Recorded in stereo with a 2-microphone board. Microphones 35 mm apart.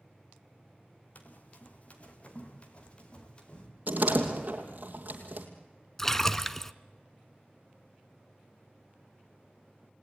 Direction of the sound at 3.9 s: 50° right (ahead or behind).